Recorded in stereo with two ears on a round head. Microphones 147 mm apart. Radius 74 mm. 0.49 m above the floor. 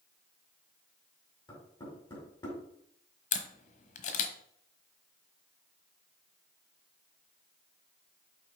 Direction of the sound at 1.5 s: 30° left (ahead or behind).